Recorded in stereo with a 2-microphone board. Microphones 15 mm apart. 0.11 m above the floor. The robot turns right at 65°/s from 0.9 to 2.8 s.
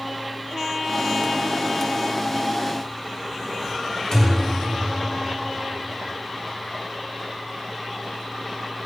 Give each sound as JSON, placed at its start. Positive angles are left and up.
{"t": 4.1, "sound": "a thud", "side_deg": 40, "distance_m": 2.5}